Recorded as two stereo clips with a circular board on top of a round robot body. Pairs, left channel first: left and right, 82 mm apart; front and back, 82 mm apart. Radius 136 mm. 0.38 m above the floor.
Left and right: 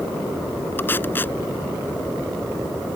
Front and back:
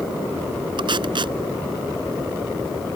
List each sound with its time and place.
0.8 s tape being pulled: 155° left